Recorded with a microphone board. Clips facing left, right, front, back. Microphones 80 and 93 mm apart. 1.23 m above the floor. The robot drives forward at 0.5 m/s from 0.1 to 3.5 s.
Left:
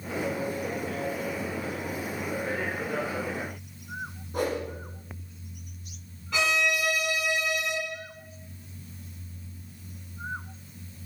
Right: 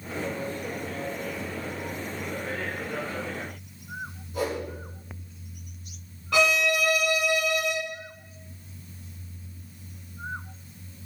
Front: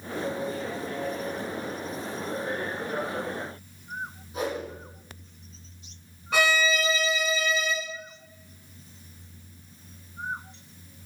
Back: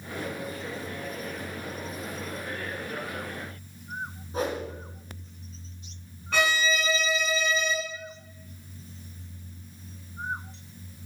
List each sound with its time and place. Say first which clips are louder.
4.3 s a whoosh: left 1 dB, back 1 dB; 130° left, 4.5 m
6.3 s a violin: right 4 dB, front 2 dB; 80° right, 2 m